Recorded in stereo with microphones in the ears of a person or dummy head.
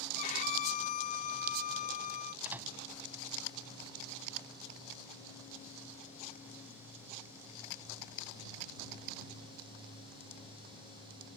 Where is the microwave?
10° right (ahead or behind).